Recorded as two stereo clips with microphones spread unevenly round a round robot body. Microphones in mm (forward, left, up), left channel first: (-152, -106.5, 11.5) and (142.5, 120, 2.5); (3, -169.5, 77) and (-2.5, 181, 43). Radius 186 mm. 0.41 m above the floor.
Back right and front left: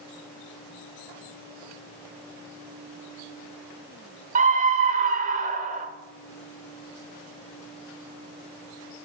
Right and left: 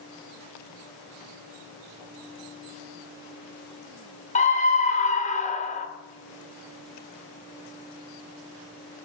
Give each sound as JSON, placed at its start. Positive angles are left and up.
{"t": 4.3, "sound": "a scream", "azimuth_deg": -20, "distance_m": 1.2}